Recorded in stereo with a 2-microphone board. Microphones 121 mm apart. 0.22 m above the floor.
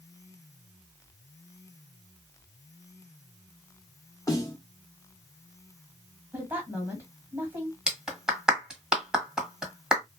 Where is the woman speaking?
20° right (ahead or behind), 1.5 m.